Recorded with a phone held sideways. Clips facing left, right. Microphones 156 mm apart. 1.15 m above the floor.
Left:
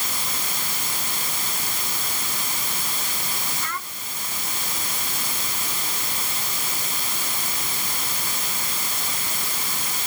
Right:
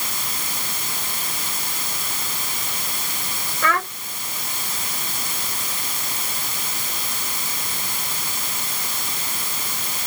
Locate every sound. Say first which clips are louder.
3.6 s a child speaking: right 11 dB; 90° right